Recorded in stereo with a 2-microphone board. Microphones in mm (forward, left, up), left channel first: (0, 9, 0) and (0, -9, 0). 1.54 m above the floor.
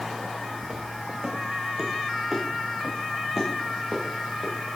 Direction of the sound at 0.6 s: 10° right (ahead or behind).